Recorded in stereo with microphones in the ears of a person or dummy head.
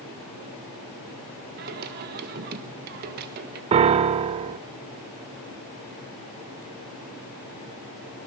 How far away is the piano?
About 0.6 m.